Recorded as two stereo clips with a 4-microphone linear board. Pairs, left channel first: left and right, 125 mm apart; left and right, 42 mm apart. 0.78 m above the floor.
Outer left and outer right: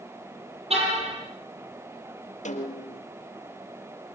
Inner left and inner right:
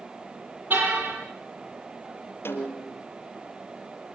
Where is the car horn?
55° right (ahead or behind), 9 m.